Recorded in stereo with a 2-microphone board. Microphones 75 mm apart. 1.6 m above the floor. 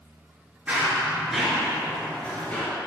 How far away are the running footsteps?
About 1.7 m.